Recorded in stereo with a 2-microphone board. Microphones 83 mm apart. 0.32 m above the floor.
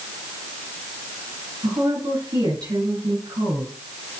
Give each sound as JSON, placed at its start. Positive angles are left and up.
{"t": 1.6, "sound": "a woman speaking", "side_deg": -65, "distance_m": 4.0}